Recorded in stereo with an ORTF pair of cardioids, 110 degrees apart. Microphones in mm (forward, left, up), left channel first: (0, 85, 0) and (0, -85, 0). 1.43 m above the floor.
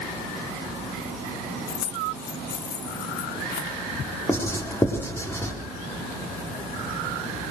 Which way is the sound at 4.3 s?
15° left.